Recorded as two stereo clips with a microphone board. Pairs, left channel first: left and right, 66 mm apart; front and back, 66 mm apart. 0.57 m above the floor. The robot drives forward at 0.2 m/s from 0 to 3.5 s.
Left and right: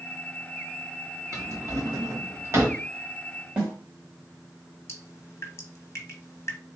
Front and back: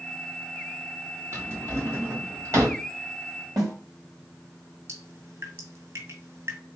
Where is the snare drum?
160° right, 3 m.